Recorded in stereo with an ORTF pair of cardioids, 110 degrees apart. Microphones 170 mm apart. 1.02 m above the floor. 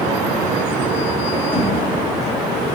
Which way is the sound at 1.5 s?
10° left.